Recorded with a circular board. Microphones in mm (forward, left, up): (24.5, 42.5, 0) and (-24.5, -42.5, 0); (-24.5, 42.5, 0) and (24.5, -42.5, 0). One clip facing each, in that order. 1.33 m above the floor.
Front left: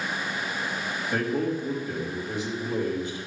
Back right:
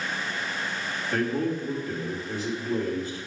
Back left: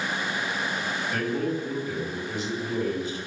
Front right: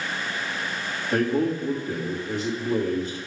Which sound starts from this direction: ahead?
A man speaking, at 1.1 s.